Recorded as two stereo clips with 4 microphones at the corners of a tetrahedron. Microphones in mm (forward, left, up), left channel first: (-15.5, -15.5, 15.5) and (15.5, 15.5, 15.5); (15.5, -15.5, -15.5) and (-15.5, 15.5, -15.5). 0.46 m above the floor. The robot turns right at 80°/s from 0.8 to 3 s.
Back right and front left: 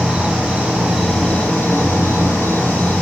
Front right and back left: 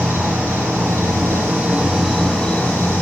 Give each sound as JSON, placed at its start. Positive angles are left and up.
{"t": 0.0, "sound": "an insect", "azimuth_deg": 120, "distance_m": 10.0}